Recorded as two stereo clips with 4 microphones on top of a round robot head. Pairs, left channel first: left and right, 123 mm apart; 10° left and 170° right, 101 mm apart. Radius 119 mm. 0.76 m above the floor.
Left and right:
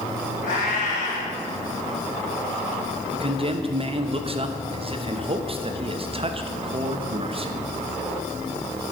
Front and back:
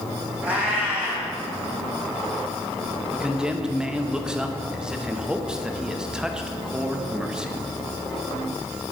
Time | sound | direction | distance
0.4 | a cat meowing | 120° left | 4 m
3.1 | a man speaking | 85° right | 1.0 m